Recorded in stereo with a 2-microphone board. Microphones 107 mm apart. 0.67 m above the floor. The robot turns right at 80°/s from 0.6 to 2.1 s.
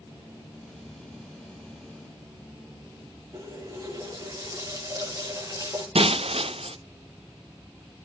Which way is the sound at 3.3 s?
35° right (ahead or behind).